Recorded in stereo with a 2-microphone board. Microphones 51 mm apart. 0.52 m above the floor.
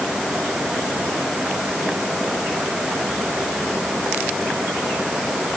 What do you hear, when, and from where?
Only background noise.